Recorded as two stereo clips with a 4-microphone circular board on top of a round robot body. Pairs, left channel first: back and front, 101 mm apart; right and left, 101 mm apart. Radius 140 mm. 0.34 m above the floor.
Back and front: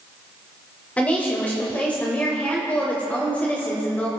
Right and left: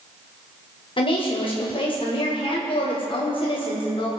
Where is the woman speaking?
105° right, 2.5 m.